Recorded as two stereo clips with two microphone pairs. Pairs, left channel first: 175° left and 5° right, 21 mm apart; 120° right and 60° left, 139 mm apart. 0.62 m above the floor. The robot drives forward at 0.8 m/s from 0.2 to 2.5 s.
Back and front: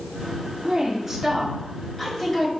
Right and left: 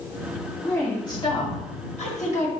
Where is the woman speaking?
50° right, 1.3 m; by 2.5 s 135° right, 1.4 m.